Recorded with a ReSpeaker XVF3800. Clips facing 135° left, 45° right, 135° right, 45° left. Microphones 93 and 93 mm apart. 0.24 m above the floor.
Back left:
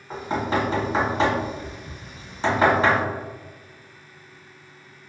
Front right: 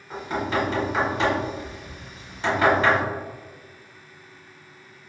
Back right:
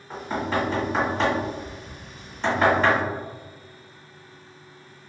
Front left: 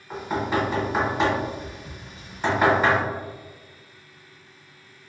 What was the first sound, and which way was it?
Knocking, 115° left.